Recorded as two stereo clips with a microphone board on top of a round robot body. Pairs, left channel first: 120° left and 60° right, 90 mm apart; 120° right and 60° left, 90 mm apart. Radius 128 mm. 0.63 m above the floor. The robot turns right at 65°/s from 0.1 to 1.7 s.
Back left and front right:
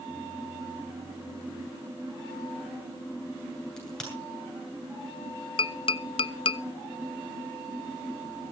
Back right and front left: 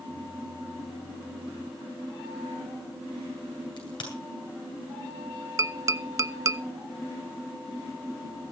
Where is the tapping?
115° left, 0.6 m.